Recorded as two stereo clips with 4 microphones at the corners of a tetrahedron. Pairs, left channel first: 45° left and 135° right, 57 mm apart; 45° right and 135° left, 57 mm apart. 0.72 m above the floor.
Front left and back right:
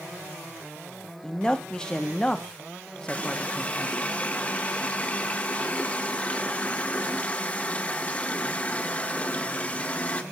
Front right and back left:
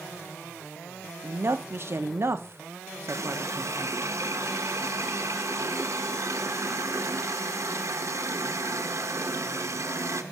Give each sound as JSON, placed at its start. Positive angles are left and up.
{"t": 1.2, "sound": "a woman speaking", "azimuth_deg": 115, "distance_m": 1.0}
{"t": 3.1, "sound": "a running tap", "azimuth_deg": 105, "distance_m": 1.1}